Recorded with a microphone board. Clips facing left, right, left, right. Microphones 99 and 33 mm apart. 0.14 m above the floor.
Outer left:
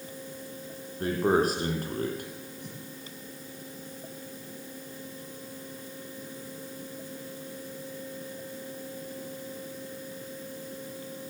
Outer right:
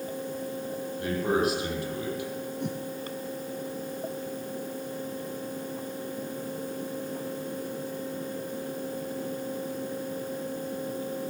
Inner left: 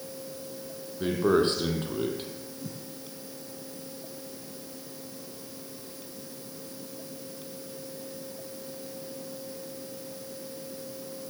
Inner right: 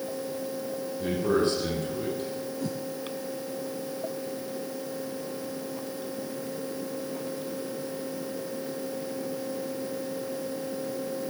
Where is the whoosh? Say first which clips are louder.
Outer right 11 dB, inner right 8 dB; 65° right (ahead or behind), 2.0 m.